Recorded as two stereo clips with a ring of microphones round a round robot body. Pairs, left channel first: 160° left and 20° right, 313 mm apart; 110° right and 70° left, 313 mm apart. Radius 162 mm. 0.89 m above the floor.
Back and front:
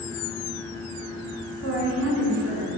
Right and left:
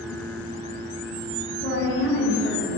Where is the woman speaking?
60° right, 2.5 m.